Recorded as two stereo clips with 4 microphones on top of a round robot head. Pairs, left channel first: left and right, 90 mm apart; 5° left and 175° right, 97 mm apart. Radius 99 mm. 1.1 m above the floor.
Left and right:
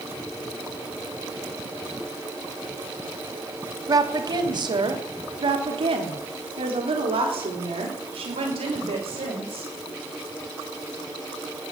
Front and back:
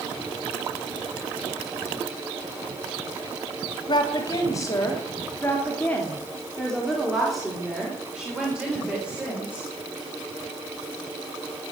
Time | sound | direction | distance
3.9 | a woman speaking | 45° right | 2.5 m